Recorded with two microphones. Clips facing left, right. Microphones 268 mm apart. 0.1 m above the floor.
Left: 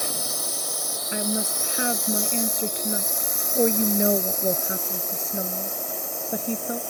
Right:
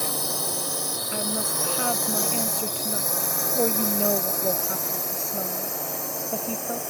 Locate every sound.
0.0 s a drone: 65° right (ahead or behind); by 6.9 s 75° right (ahead or behind)
1.1 s a woman speaking: 20° left (ahead or behind)